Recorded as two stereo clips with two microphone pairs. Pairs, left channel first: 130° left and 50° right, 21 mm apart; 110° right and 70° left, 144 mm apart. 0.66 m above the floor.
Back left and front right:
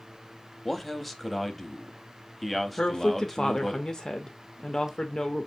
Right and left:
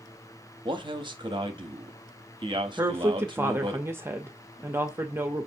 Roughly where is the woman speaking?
Behind left.